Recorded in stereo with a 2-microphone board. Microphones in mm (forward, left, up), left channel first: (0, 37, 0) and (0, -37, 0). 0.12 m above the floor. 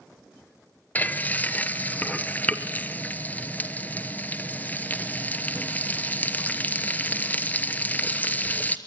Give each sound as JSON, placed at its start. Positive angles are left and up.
{"t": 0.9, "sound": "frying", "side_deg": 25, "distance_m": 1.1}